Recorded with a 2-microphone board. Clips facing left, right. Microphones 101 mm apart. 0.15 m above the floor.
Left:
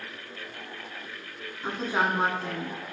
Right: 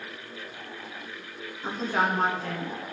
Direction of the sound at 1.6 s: 10° left (ahead or behind).